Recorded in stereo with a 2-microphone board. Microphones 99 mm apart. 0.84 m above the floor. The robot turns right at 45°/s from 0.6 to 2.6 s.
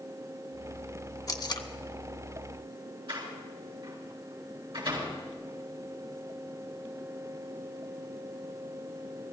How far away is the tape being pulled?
About 0.8 m.